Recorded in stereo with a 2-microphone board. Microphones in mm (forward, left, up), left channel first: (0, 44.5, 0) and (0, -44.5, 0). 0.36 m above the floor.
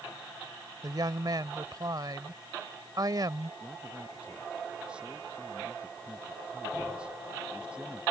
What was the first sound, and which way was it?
A woman speaking, 50° right (ahead or behind).